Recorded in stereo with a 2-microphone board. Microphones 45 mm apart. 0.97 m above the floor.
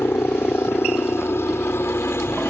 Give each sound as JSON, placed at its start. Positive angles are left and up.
{"t": 0.0, "sound": "a helicopter", "side_deg": 65}